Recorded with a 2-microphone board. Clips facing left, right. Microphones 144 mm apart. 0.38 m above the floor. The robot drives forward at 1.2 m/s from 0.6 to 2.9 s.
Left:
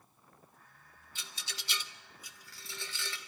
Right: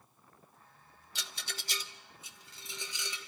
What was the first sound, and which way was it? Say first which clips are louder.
A rattle: right 3 dB; 80° right.